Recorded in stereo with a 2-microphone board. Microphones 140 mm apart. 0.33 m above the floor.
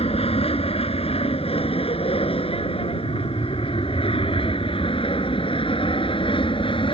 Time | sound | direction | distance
0.0 | an aircraft | 45° left (ahead or behind) | ?